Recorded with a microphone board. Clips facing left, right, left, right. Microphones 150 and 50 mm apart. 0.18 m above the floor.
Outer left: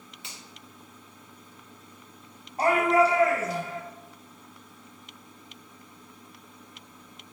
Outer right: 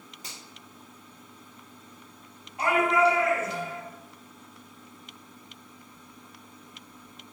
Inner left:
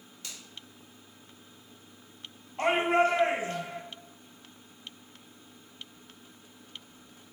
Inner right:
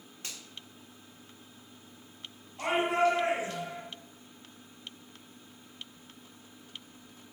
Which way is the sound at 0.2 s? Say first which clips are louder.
Outer right 1 dB, inner right 1 dB; 40° right (ahead or behind).